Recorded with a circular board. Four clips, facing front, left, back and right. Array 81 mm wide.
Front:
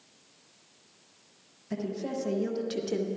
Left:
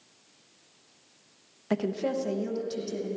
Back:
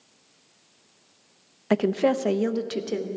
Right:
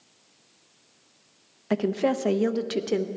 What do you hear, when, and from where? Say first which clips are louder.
1.7 s a woman speaking: right 4 dB, back 12 dB; 170° right, 0.9 m; by 3.1 s 100° right, 1.2 m